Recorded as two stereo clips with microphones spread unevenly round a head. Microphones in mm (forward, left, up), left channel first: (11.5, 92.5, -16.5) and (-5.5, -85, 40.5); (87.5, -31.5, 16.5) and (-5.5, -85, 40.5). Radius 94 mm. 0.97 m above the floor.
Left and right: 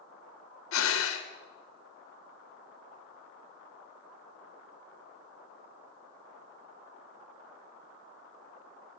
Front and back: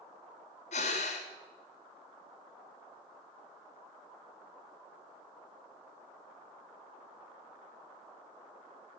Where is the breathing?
75° left, 1.7 m.